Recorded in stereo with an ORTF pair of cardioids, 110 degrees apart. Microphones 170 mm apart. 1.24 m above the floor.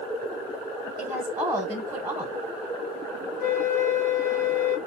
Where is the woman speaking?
20° right, 0.7 m.